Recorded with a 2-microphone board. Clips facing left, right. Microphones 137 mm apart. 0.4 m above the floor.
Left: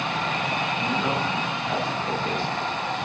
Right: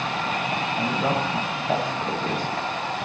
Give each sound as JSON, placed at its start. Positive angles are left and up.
{"t": 0.8, "sound": "a woman speaking", "side_deg": -45, "distance_m": 2.0}